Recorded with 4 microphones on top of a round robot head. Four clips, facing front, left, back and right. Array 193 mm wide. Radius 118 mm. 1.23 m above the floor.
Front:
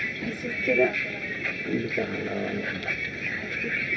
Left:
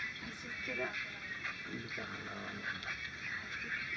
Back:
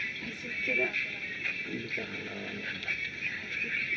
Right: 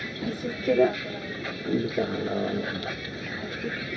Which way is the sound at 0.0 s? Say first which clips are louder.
Right 16 dB, front 9 dB; 60° right.